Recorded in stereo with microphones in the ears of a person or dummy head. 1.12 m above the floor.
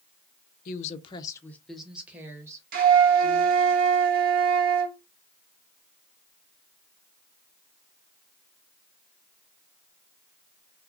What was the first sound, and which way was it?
A woman speaking, 50° left (ahead or behind).